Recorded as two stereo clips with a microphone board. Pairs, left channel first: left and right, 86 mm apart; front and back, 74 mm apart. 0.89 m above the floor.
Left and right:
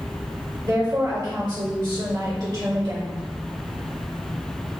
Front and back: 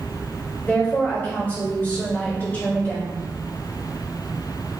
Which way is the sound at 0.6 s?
60° right.